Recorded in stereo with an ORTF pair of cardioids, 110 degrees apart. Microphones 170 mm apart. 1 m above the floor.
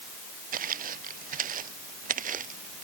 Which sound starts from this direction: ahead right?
Footsteps, at 0.5 s.